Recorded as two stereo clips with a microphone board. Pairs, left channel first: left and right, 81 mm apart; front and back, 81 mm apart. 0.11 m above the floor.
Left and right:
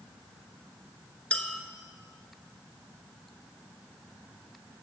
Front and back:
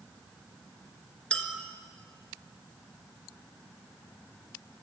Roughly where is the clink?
Ahead left.